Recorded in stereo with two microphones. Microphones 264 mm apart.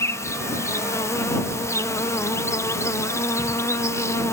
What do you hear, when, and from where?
0.0 s an insect: 10° left (ahead or behind)